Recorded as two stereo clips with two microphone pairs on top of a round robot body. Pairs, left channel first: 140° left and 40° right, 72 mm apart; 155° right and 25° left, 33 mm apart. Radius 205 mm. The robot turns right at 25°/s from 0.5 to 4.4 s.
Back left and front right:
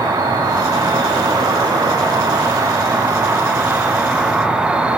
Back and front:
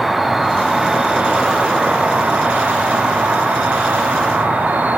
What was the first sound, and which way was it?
An insect, 60° right.